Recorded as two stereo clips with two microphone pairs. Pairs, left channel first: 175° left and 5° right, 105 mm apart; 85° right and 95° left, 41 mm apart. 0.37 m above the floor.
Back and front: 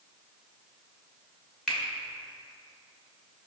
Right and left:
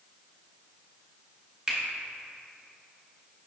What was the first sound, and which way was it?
A finger snap, 105° left.